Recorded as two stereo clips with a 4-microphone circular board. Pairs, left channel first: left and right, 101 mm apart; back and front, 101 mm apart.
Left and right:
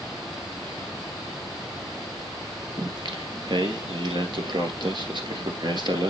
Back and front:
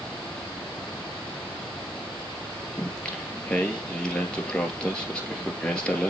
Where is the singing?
100° right, 1.8 m.